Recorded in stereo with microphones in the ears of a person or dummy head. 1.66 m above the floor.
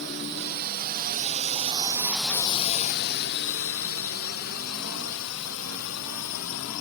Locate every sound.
0.0 s a drone: 60° right (ahead or behind); by 6.8 s 75° left (ahead or behind)